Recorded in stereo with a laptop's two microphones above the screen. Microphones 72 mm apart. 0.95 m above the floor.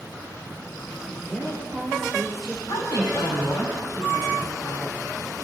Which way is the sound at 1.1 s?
5° left (ahead or behind).